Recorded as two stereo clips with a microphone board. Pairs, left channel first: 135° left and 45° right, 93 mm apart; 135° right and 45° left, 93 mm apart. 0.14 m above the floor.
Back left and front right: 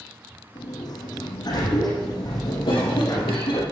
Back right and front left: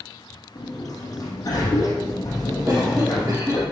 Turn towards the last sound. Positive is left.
turn(degrees=115)